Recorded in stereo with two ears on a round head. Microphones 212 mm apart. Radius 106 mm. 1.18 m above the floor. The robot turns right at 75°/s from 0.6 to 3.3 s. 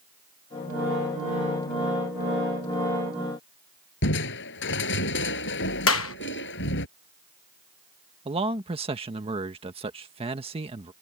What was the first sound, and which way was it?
Crushing, 50° left (ahead or behind).